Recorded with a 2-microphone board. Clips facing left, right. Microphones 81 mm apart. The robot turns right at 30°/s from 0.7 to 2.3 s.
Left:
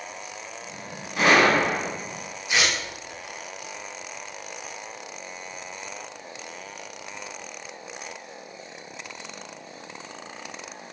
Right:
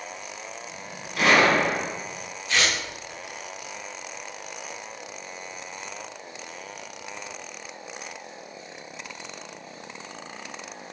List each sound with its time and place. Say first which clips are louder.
1.2 s a gunshot: left 1 dB; 25° left (ahead or behind), 1.4 m; by 1.9 s centre (ahead or behind), 1.4 m
2.5 s tearing paper: even; 15° left (ahead or behind), 0.5 m